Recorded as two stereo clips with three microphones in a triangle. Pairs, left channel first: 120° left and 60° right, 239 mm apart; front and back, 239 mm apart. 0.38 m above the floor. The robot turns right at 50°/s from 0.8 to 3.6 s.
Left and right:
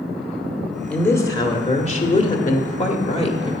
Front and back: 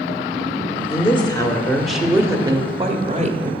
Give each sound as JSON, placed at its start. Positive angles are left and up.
{"t": 0.9, "sound": "a woman speaking", "azimuth_deg": 40, "distance_m": 1.1}